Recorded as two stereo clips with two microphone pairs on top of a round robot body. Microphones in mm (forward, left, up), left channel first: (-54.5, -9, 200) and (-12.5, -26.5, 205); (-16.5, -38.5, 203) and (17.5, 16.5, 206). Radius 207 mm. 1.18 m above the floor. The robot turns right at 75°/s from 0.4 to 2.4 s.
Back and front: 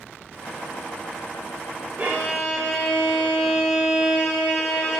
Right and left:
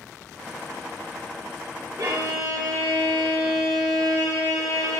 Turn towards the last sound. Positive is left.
turn(degrees=55)